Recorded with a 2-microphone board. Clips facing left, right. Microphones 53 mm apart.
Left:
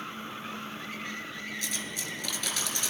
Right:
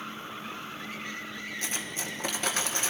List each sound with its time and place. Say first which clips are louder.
1.6 s cutlery clinking: right 1 dB; 35° right (ahead or behind), 2.5 m